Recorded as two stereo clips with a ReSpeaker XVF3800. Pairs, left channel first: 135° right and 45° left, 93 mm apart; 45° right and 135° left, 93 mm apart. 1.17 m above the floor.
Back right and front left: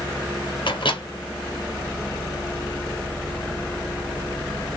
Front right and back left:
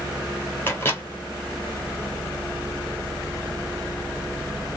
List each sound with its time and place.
0.7 s a microwave: 110° right, 0.6 m